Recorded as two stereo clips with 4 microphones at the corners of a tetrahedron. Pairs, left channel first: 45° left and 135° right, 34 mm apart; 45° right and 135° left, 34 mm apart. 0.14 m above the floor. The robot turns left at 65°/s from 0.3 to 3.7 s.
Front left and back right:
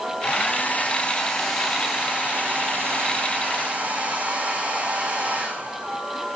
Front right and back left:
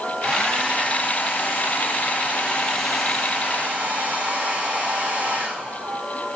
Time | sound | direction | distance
0.2 | a hair dryer | 40° left | 6 m